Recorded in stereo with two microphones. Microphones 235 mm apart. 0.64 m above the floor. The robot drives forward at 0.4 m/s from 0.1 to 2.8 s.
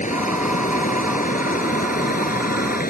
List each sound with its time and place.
0.0 s running water: 35° left (ahead or behind); by 2.9 s 40° left (ahead or behind)